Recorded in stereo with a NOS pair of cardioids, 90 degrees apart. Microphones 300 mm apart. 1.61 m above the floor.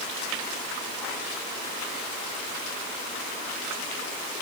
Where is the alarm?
No alarm in this recording.